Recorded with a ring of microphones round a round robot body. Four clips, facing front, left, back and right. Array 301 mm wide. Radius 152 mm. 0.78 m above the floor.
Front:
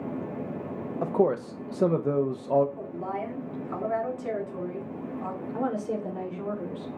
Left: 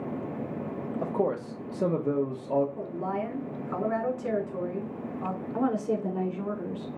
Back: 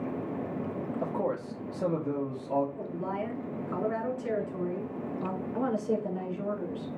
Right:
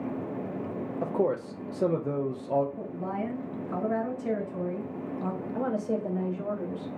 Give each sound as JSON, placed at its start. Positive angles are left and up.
{"t": 1.0, "sound": "a man speaking", "azimuth_deg": 0, "distance_m": 0.7}
{"t": 2.8, "sound": "a woman speaking", "azimuth_deg": 75, "distance_m": 3.5}
{"t": 5.5, "sound": "a woman speaking", "azimuth_deg": 75, "distance_m": 3.5}